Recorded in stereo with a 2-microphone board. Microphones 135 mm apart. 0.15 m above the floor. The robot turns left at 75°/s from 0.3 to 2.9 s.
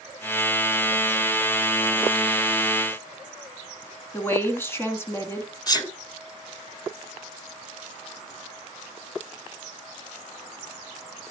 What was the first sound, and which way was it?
A woman speaking, 15° left (ahead or behind).